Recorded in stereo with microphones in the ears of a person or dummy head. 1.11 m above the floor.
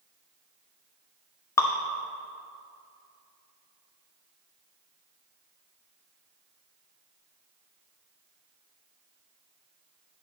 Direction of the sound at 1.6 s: 20° left (ahead or behind).